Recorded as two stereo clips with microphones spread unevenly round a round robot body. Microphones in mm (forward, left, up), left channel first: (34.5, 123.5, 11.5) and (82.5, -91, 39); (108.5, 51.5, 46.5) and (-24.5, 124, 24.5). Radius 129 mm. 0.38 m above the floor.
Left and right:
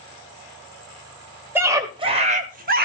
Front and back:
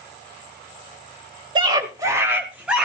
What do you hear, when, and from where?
1.6 s a scream: 165° right, 1.2 m; by 2.9 s 125° right, 1.5 m